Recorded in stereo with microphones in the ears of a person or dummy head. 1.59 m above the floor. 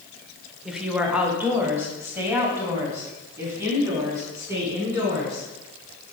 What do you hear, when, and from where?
0.7 s a woman speaking: 5° right (ahead or behind), 1.0 m; by 5.5 s 20° right (ahead or behind), 4.5 m